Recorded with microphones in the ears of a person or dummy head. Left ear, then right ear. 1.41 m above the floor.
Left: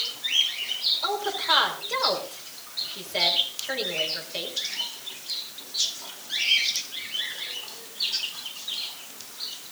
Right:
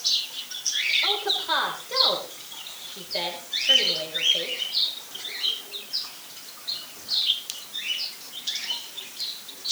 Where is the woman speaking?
10° left (ahead or behind), 6 m.